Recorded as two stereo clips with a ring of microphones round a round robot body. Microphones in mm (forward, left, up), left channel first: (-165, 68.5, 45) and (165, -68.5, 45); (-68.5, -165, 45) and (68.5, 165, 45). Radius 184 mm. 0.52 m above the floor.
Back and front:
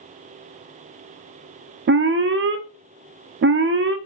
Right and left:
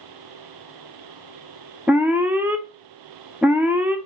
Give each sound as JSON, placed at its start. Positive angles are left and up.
{"t": 1.9, "sound": "an alarm", "azimuth_deg": -15, "distance_m": 0.6}